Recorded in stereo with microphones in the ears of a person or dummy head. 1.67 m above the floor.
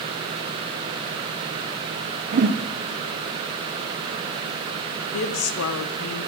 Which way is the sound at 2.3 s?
40° right (ahead or behind).